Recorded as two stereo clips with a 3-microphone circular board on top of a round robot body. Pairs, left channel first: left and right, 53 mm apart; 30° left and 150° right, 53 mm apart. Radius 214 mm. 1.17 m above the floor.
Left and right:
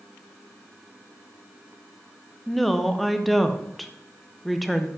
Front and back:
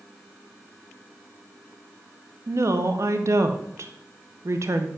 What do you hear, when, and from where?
2.5 s a woman speaking: straight behind, 0.8 m